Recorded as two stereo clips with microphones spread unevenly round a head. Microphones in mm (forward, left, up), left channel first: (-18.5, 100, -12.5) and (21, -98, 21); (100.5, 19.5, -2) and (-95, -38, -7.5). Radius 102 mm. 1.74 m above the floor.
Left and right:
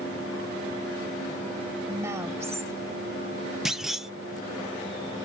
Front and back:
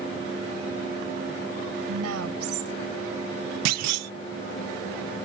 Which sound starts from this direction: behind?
A clunk, at 3.6 s.